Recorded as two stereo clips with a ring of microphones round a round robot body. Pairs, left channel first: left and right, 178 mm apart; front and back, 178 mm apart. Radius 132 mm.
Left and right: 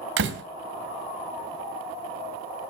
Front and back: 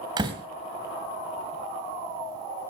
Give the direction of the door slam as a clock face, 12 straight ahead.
4 o'clock.